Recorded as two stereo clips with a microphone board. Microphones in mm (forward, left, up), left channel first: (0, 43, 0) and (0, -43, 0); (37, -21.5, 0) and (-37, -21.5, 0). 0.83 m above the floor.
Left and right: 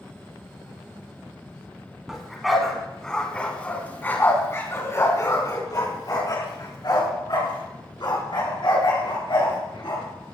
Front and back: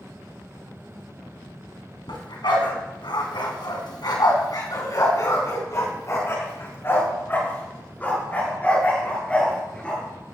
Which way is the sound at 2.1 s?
5° right.